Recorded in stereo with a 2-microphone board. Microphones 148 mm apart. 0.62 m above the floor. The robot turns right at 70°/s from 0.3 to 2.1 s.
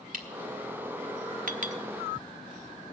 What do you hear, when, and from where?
0.1 s a camera shutter: 65° right (ahead or behind), 1.8 m
1.5 s a clink: 65° right (ahead or behind), 0.8 m; by 1.8 s 50° right (ahead or behind), 0.8 m